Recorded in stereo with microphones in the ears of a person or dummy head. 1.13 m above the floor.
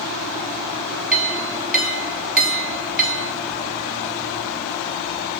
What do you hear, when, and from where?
1.1 s a clink: 10° right (ahead or behind), 2.5 m